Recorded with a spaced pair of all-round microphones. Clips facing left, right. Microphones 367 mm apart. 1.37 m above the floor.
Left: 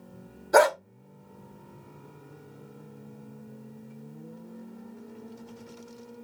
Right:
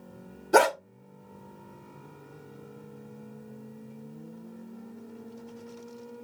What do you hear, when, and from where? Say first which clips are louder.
0.5 s a dog barking: left 1 dB; 45° right (ahead or behind), 1.1 m